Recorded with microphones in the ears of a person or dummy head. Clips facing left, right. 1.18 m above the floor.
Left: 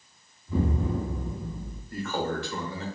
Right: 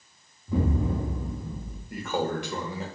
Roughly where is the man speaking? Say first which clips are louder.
Right 1 dB; centre.